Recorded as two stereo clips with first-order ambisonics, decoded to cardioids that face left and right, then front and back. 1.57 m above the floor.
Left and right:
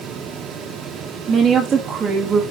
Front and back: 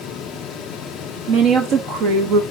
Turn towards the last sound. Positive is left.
turn(degrees=-160)